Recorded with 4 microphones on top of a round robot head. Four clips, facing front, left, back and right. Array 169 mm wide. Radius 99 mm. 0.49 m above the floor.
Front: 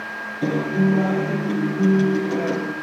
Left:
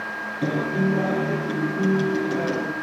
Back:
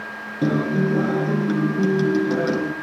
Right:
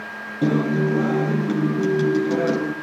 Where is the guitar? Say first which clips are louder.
Right 4 dB, even; 145° right, 4.5 m.